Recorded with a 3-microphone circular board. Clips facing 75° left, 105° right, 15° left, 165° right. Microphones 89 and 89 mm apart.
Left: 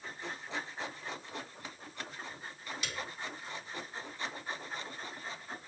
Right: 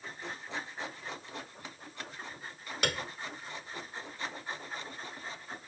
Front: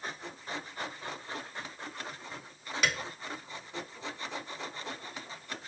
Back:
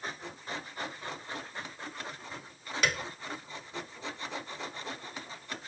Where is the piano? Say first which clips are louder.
Right 8 dB, back 1 dB; 75° right, 0.9 m.